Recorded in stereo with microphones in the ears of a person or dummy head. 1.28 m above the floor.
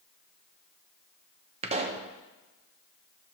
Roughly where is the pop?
Right.